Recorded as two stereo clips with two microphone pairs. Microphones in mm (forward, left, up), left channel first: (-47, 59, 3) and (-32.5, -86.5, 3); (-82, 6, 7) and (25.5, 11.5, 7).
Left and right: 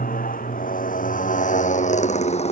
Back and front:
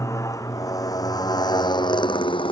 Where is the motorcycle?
120° left; by 2.5 s 145° left.